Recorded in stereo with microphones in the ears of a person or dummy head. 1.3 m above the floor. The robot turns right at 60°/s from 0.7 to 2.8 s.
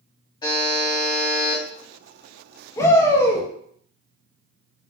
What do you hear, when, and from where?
0.4 s a buzzer: 150° left, 1.3 m; by 1.6 s 155° right, 1.3 m
2.8 s a shout: 15° left (ahead or behind), 1.1 m